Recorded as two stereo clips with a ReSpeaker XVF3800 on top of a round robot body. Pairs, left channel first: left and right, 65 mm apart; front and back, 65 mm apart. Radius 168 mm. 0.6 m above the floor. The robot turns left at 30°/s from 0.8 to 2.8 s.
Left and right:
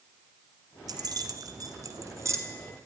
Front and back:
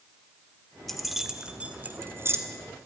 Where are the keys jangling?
85° right, 1.9 m; by 2.4 s 130° right, 1.9 m.